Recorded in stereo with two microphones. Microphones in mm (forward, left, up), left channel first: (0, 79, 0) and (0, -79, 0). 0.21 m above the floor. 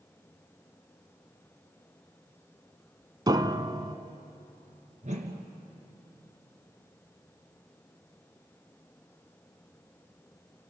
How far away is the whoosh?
About 2.5 m.